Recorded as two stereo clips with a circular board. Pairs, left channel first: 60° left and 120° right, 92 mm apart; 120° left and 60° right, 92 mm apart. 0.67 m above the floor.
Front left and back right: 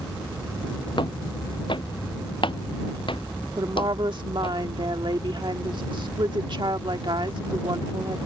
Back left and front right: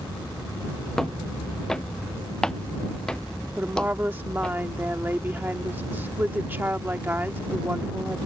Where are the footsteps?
35° left; by 4.6 s 40° left.